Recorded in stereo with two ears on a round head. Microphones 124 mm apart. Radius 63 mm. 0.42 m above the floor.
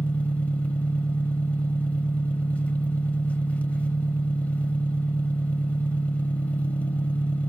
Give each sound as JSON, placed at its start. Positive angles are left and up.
{"t": 0.0, "sound": "an engine running", "side_deg": 10, "distance_m": 0.8}